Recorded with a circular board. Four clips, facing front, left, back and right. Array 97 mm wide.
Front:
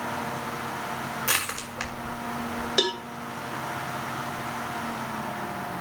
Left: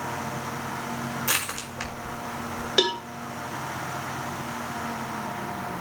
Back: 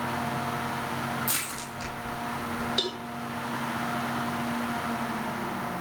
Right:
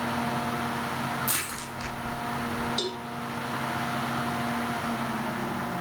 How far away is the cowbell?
About 0.8 m.